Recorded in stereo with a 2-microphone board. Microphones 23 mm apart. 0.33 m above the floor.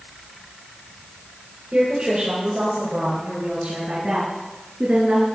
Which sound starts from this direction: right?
A woman speaking, at 1.7 s.